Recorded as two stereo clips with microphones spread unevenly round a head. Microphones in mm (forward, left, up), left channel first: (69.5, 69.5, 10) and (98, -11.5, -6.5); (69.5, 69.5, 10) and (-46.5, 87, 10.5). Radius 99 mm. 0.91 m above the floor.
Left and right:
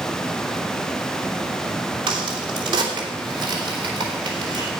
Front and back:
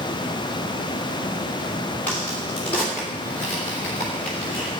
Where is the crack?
90° right, 3 m.